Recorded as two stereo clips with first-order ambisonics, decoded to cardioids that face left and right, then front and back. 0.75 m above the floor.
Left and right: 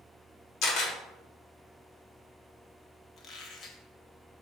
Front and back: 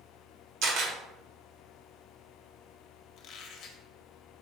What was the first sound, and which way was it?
A camera shutter, 140° left.